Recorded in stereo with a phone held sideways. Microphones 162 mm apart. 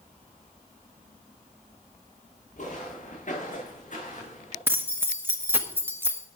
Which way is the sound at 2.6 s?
60° left (ahead or behind).